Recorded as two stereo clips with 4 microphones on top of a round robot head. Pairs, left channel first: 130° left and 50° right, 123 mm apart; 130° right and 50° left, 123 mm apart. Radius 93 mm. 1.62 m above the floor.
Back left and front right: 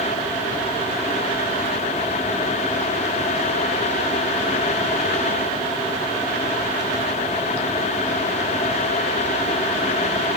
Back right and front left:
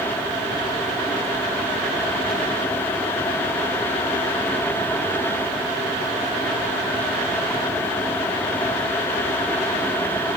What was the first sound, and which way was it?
Only background noise.